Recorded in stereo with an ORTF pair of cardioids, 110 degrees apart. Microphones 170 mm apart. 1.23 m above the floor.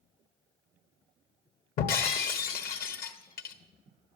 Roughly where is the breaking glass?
Ahead left.